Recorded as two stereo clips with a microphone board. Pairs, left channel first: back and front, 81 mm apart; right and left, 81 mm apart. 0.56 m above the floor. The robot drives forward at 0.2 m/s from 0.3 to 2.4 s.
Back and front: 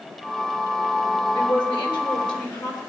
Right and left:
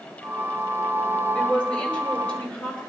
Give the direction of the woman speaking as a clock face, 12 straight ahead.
6 o'clock.